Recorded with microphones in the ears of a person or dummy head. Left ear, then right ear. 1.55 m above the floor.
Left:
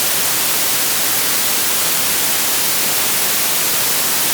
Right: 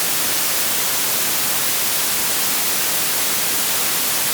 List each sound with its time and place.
Only background noise.